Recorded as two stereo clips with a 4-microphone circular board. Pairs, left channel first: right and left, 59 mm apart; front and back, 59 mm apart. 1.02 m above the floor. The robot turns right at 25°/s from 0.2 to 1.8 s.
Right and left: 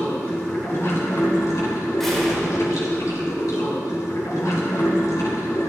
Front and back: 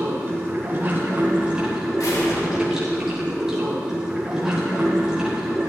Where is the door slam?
5° right, 3.5 m.